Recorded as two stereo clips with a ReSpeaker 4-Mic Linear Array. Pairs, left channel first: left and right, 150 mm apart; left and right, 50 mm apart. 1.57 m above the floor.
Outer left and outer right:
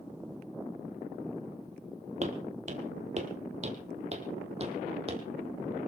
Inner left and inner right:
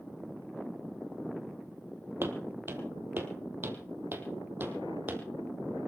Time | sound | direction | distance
2.2 | footsteps | 50° right (ahead or behind) | 2.5 m